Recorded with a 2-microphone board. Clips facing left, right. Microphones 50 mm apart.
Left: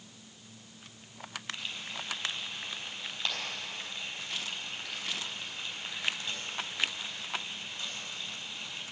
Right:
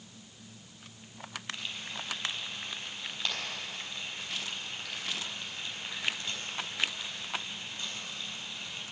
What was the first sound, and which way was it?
Frying, 5° right (ahead or behind).